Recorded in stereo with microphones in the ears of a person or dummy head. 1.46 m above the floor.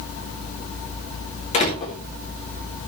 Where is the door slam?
35° left (ahead or behind), 3.5 m.